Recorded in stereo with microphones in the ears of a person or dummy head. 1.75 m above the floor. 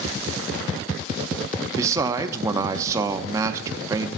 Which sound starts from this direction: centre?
A man speaking, at 1.7 s.